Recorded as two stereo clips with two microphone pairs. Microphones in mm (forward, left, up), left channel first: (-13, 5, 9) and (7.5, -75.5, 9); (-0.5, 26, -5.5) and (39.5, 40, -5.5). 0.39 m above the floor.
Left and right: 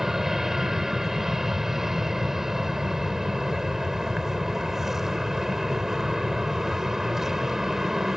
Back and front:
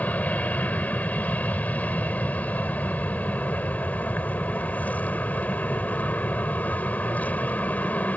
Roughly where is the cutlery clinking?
No cutlery clinking in this recording.